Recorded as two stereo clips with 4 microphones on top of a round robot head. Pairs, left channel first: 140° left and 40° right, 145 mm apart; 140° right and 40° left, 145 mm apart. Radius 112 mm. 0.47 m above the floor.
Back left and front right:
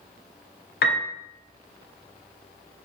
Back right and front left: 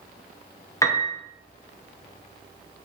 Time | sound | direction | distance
0.8 | a piano | 150° left | 0.7 m